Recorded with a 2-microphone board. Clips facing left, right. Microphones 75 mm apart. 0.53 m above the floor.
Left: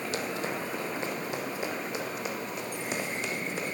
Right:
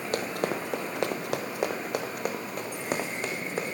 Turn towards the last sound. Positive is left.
turn(degrees=-40)  # may be behind; listen again after turning